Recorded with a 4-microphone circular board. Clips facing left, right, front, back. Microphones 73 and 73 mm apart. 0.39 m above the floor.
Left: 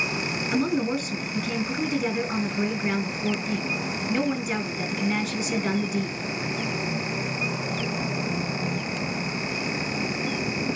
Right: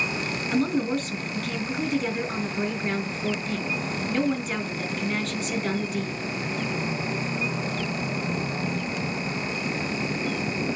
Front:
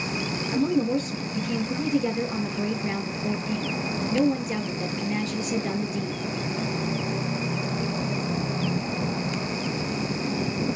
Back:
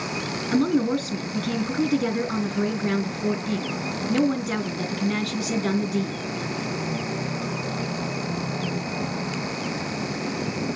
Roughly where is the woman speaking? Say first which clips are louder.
Even, back 2 dB; behind.